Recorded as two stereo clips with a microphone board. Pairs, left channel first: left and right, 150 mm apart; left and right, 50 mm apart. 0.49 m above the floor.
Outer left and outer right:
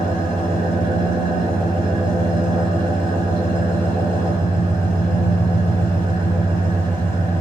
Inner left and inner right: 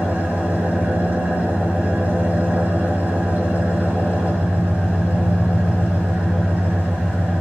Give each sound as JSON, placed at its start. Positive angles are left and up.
{"t": 0.0, "sound": "an engine running", "side_deg": -30, "distance_m": 6.5}